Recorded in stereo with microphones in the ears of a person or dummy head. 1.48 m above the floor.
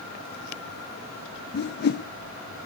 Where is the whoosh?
50° left (ahead or behind), 0.6 m.